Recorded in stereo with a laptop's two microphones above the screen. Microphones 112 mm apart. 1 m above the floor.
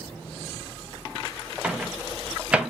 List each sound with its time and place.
1.6 s a microwave: 10° right (ahead or behind), 0.8 m